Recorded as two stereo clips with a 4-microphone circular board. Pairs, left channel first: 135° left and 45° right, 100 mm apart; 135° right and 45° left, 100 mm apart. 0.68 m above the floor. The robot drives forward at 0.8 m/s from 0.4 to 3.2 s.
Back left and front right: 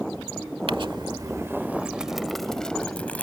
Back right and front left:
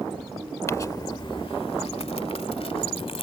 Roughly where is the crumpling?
Right.